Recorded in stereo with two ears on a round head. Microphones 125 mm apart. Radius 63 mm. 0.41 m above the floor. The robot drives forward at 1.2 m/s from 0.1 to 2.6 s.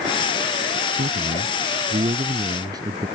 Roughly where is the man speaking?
Right.